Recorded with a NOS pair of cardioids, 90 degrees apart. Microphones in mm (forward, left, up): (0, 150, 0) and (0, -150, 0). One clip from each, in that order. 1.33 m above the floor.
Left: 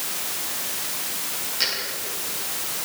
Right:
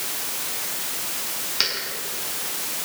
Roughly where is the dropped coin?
Ahead right.